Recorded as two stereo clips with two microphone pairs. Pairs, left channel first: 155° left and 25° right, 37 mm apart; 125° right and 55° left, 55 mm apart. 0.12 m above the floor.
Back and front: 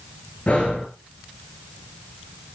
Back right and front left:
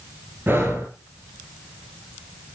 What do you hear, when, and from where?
0.5 s breathing: 105° left, 8 m